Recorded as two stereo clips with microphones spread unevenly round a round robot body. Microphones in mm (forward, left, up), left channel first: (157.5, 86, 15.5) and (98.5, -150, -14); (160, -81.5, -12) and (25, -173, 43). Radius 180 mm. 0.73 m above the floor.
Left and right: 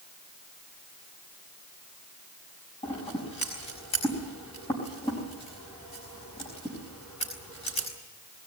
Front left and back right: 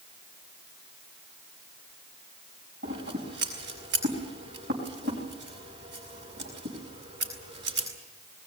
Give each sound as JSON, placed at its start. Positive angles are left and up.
{"t": 2.8, "sound": "scissors", "azimuth_deg": 150, "distance_m": 5.0}